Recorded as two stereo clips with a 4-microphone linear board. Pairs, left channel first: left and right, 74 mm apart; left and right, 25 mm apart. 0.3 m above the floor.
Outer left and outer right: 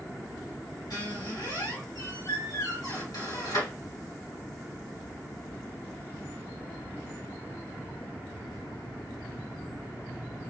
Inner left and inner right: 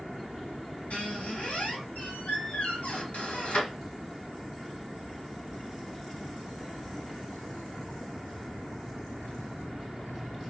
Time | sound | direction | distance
0.9 | a squeak | 65° left (ahead or behind) | 2.5 m